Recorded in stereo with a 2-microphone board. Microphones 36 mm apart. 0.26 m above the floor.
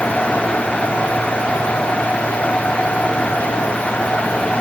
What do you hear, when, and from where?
Only background noise.